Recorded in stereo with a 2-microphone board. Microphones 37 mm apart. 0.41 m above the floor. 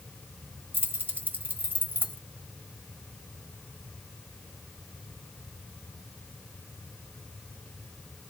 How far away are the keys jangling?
About 1.3 m.